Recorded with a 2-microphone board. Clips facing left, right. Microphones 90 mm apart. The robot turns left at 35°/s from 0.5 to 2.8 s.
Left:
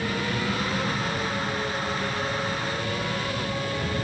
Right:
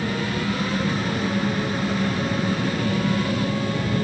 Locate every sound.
0.0 s an engine running: 25° right; by 4.0 s 105° right